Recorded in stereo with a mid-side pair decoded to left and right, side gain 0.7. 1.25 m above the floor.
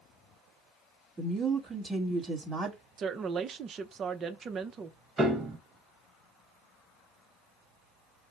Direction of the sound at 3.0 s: 35° right.